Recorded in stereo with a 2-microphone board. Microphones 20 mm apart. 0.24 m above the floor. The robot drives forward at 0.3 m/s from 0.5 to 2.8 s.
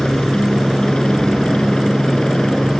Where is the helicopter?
40° left (ahead or behind).